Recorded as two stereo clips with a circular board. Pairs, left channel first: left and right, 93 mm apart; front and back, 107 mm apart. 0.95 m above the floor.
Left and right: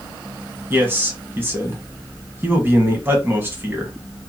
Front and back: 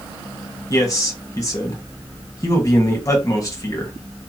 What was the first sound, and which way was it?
A man speaking, 40° right.